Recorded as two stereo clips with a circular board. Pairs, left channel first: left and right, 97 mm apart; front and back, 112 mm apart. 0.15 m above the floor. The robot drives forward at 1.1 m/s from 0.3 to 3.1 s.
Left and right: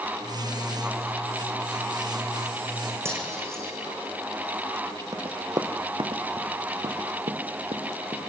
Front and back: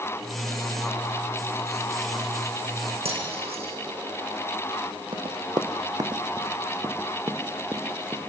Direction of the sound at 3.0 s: 155° right.